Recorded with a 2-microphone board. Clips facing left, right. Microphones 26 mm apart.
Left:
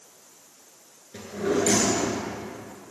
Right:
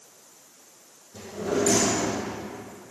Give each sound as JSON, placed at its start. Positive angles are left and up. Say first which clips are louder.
{"t": 1.1, "sound": "a drawer", "louder": "left 2 dB", "side_deg": 70, "distance_m": 3.5}